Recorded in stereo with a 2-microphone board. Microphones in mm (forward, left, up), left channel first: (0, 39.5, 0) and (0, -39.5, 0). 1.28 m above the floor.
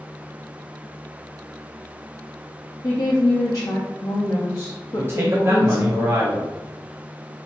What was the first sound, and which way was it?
A woman speaking, 45° left (ahead or behind).